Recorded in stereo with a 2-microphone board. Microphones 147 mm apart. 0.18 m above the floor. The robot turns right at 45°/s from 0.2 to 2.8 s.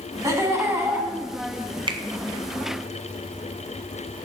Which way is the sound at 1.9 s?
35° right (ahead or behind).